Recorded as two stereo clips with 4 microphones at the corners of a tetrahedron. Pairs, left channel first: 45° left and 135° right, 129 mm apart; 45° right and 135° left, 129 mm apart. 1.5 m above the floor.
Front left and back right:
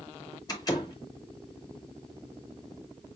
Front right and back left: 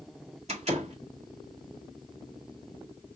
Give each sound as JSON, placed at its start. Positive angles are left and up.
{"t": 0.5, "sound": "a door slam", "azimuth_deg": 105, "distance_m": 1.7}